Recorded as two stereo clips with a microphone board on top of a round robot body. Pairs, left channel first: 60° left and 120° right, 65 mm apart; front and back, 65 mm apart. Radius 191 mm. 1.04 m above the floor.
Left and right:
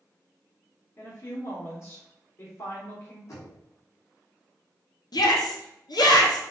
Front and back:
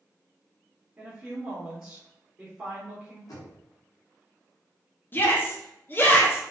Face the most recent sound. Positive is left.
turn(degrees=60)